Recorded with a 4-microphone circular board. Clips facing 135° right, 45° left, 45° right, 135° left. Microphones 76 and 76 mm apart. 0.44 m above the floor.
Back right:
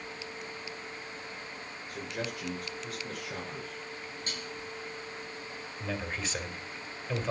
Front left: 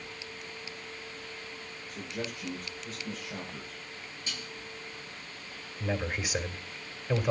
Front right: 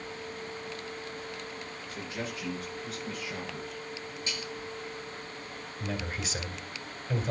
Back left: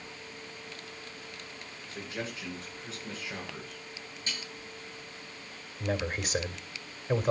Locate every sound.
1.9 s a man speaking: 165° right, 8 m
4.3 s dishes clattering: 175° right, 6 m
5.8 s a man speaking: 120° left, 2 m